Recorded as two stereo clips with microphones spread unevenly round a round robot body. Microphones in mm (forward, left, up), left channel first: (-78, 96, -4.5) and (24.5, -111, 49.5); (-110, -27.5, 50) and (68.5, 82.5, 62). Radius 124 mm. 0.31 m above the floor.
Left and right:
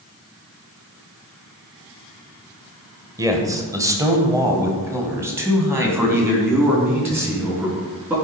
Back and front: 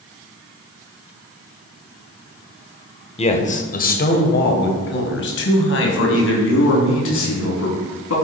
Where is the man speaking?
150° right, 1.5 m.